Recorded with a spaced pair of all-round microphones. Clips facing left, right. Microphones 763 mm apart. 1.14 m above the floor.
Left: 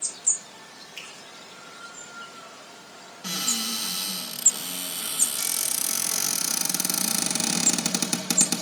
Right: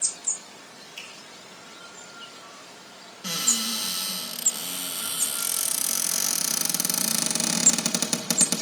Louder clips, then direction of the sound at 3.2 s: Even; 10° right (ahead or behind).